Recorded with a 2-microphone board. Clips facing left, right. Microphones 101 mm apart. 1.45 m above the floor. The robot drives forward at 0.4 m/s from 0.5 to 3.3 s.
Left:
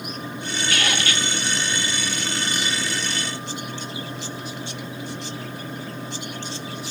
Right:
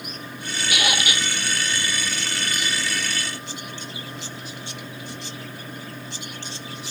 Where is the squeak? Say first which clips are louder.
Right 1 dB; 15° right (ahead or behind), 1.0 m.